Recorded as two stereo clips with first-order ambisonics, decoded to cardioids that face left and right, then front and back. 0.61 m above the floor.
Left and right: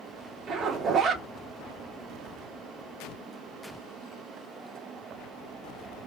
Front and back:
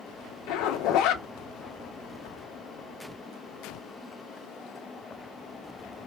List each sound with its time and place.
0.5 s a zipper: 30° right, 0.5 m